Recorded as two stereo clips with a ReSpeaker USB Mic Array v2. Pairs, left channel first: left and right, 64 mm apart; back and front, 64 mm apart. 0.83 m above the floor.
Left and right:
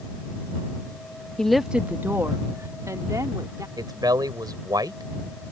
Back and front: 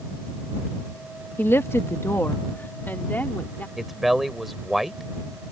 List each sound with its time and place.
1.4 s a woman speaking: 160° left; by 3.7 s 115° right
3.8 s a man speaking: 85° right